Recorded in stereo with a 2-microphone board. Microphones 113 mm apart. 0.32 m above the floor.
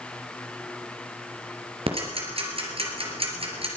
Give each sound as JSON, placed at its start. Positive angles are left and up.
{"t": 1.9, "sound": "ticking", "side_deg": -60, "distance_m": 3.5}